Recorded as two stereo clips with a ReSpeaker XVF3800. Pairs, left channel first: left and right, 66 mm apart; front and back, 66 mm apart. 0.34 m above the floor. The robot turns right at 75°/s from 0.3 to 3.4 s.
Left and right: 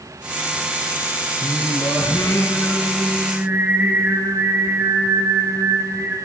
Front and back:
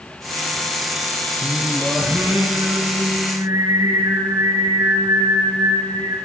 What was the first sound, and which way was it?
Singing, 60° left.